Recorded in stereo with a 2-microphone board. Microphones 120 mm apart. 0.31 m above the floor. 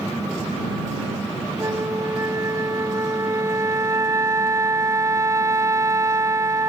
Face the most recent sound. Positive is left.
turn(degrees=-25)  # may be behind; listen again after turning